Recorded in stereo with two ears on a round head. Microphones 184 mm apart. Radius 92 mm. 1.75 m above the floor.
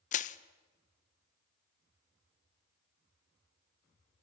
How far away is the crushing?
About 0.6 m.